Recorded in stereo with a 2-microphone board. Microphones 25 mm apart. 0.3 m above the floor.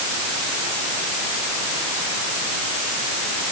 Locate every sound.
Only background noise.